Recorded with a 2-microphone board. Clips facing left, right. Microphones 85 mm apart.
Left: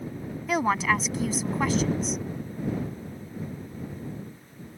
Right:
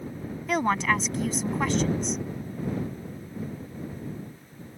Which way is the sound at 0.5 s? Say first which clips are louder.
Even; 5° left (ahead or behind).